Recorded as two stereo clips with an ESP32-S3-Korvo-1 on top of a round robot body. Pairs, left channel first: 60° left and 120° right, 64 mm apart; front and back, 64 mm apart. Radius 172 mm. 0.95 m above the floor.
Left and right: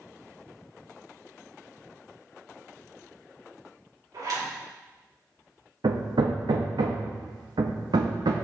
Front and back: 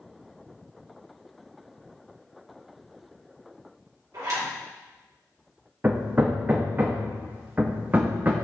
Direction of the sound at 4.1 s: 145° right.